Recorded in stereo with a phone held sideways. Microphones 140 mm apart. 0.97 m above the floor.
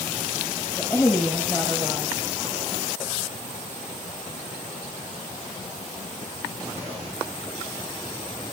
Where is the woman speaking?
15° left (ahead or behind), 4.5 m.